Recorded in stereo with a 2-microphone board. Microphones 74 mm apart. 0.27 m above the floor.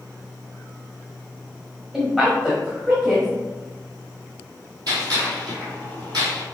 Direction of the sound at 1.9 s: 5° right (ahead or behind).